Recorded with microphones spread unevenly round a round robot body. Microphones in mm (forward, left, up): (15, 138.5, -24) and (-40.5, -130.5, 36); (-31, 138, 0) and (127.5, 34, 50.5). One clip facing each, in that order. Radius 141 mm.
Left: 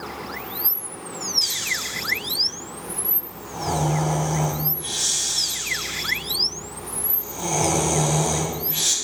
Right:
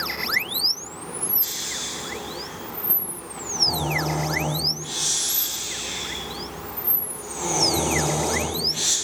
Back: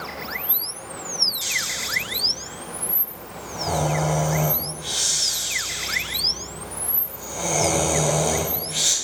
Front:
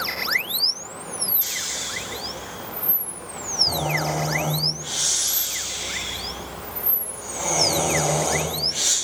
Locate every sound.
1.4 s snoring: 100° left, 2.5 m